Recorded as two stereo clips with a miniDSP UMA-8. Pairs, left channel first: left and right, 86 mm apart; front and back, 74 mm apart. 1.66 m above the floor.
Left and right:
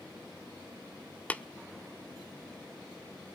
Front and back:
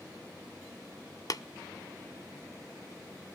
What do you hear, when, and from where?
1.3 s tapping: 20° left, 0.8 m